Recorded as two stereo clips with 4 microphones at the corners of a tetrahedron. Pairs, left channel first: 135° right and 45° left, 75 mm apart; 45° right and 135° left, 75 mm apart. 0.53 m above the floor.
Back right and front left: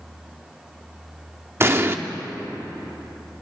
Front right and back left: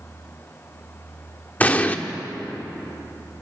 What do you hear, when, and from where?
1.6 s an explosion: 10° left, 1.0 m